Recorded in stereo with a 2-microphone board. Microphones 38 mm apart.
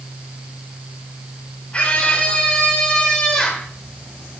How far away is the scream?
About 5.5 m.